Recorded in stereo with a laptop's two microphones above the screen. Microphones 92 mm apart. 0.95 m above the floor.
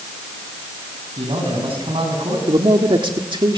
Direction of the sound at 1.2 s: 80° right.